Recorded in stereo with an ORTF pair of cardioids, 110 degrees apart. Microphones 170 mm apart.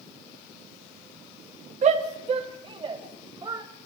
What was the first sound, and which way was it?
A shout, 40° right.